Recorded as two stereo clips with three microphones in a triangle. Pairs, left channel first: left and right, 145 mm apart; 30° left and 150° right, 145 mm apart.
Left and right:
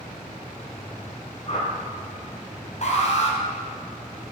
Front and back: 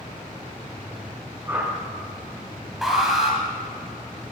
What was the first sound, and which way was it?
A whoosh, 135° left.